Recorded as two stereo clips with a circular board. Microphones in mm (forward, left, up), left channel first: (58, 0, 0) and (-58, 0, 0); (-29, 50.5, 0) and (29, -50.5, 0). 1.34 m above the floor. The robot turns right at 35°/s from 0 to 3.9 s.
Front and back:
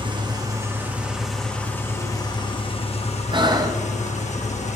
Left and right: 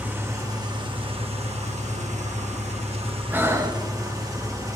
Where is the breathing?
135° right, 0.6 m; by 3.8 s 115° right, 0.6 m.